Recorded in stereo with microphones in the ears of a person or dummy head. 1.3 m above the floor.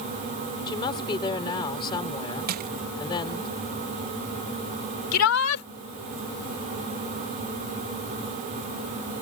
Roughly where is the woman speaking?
Left.